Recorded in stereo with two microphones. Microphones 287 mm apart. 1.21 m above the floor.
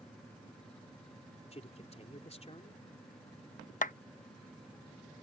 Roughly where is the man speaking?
Left.